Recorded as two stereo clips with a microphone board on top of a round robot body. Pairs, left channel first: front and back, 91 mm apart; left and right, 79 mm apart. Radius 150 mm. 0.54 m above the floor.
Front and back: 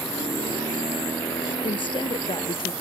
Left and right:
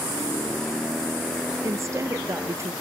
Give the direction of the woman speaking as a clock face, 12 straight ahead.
1 o'clock.